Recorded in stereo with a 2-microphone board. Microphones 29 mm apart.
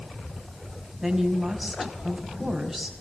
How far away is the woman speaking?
About 4.5 m.